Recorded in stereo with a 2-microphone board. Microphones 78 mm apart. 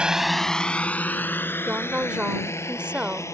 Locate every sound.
0.0 s a drone: 15° right (ahead or behind); by 3.4 s 35° left (ahead or behind)
1.7 s a woman speaking: 15° right (ahead or behind)